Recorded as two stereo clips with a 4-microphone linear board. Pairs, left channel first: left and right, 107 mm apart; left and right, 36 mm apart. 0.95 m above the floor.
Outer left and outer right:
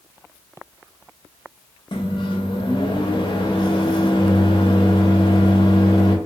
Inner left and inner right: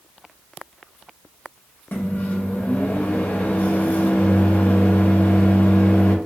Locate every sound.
1.9 s a microwave: 50° left (ahead or behind), 0.6 m